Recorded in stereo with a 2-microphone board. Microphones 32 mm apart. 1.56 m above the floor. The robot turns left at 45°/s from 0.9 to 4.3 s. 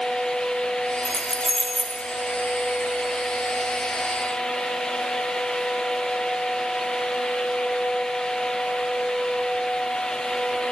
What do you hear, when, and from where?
1.1 s keys jangling: 25° left (ahead or behind), 0.5 m; by 2.0 s 30° left (ahead or behind), 0.5 m